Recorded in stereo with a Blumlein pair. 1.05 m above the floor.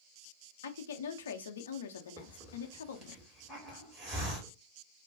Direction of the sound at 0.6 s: 65° left.